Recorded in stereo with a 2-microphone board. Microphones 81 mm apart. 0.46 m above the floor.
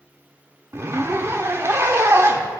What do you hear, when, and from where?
0.7 s a zipper: 35° right (ahead or behind), 0.6 m